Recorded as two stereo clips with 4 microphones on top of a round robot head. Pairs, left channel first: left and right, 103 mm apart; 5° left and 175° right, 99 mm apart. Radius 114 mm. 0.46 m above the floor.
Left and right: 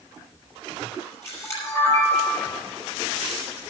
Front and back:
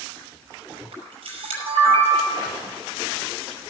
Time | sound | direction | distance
0.9 | a camera shutter | 160° left | 6 m